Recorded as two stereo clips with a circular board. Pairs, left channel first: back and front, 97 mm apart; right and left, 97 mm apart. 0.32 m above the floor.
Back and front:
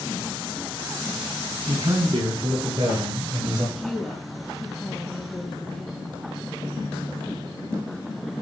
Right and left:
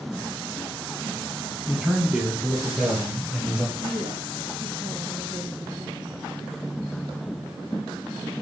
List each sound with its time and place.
1.7 s a man speaking: 20° left, 2.5 m; by 3.6 s 10° left, 1.8 m
3.8 s a woman speaking: 95° left, 2.5 m